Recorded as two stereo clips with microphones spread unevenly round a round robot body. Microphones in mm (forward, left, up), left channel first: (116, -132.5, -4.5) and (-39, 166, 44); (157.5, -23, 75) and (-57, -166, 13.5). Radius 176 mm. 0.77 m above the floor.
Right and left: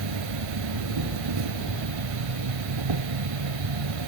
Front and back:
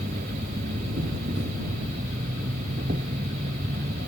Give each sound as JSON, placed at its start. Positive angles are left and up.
{"t": 0.0, "sound": "an insect", "azimuth_deg": 140}